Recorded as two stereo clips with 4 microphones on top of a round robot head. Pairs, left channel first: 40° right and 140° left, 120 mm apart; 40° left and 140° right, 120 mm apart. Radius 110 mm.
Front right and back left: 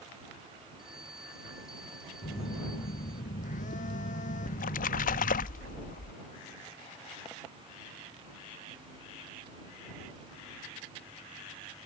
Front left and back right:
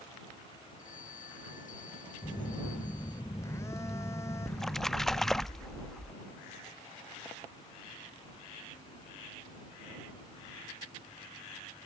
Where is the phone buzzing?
25° right.